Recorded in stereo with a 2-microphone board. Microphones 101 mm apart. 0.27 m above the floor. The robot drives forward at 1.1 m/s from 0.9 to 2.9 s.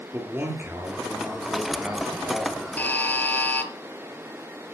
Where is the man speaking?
20° right (ahead or behind), 6 m; by 2.7 s 15° right (ahead or behind), 7.5 m.